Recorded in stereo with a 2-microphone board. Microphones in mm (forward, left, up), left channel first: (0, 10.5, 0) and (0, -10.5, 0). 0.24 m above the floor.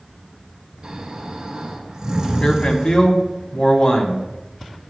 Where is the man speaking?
45° left (ahead or behind), 1.4 m.